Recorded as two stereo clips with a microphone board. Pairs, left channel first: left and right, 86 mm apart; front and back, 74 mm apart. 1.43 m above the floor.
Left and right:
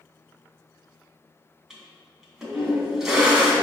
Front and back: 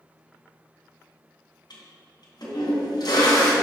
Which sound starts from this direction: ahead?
A toilet flushing, at 1.7 s.